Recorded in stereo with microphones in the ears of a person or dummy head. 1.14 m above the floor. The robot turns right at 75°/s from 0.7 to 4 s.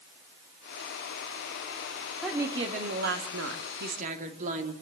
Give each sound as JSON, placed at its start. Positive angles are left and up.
{"t": 2.2, "sound": "a woman speaking", "azimuth_deg": 175, "distance_m": 3.0}